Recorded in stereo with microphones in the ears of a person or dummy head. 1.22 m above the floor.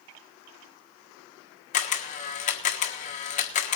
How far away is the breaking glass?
No breaking glass in this recording.